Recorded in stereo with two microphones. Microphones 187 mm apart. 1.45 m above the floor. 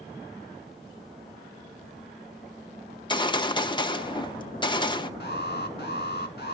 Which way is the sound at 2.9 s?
25° left (ahead or behind).